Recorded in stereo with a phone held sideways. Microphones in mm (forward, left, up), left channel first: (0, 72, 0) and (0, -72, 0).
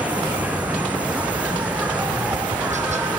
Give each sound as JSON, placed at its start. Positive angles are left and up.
{"t": 0.0, "sound": "an insect", "side_deg": -10}
{"t": 2.1, "sound": "tapping", "side_deg": -55}